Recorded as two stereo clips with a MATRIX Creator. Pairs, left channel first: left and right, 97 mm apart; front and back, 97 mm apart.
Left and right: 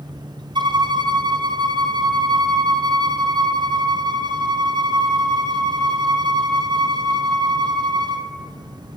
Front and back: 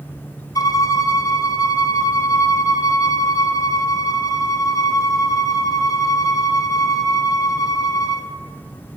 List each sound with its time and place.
0.6 s a violin: 50° right, 0.7 m